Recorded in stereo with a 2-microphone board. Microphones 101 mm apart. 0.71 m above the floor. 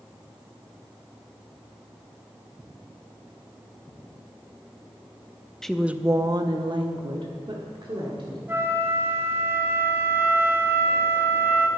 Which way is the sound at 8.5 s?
25° right (ahead or behind).